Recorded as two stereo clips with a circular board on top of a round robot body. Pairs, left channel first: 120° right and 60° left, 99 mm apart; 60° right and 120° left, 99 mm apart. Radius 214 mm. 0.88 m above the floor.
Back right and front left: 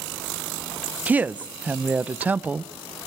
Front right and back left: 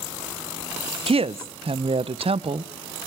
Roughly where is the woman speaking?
Behind left.